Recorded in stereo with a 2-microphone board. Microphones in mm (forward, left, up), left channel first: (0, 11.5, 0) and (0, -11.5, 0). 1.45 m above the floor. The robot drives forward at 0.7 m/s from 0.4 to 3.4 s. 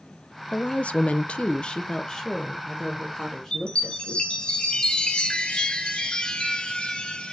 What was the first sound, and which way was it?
A woman speaking, 50° left (ahead or behind).